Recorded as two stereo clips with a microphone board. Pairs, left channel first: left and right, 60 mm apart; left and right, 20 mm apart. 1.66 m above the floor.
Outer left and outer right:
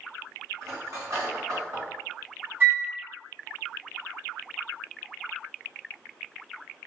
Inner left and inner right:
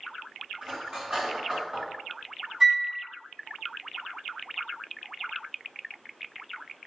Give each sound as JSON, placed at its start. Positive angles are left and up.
{"t": 0.6, "sound": "cutlery clinking", "side_deg": -65, "distance_m": 1.8}
{"t": 2.6, "sound": "a flute", "side_deg": -35, "distance_m": 1.8}